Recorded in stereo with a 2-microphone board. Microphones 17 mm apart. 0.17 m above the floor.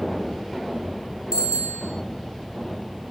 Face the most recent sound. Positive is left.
turn(degrees=-80)